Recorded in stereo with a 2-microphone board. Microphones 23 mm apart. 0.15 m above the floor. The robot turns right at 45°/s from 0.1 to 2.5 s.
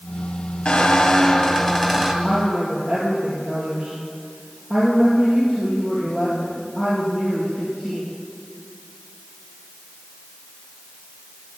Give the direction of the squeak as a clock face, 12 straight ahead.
8 o'clock.